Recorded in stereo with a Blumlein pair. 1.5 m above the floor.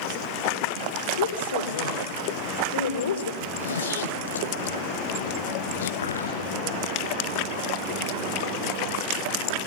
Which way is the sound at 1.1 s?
70° left.